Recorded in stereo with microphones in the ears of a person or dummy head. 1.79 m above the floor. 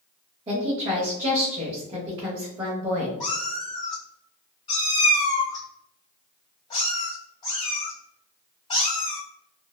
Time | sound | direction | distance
0.5 | a woman speaking | 30° right (ahead or behind) | 0.8 m
3.2 | a cat meowing | 25° left (ahead or behind) | 1.3 m